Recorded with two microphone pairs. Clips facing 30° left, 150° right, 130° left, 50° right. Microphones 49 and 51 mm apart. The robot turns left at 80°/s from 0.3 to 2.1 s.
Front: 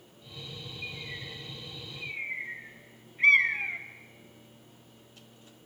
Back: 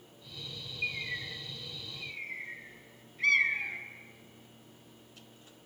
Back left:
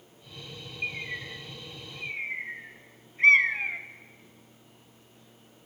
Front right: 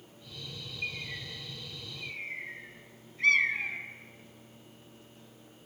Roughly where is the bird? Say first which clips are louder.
Back 6 dB, back left 4 dB; behind.